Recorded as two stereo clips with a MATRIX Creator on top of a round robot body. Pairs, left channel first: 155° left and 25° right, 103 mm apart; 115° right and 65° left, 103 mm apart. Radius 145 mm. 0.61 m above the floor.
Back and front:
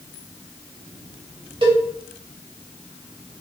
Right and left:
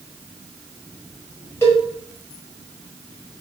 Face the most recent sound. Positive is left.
turn(degrees=-50)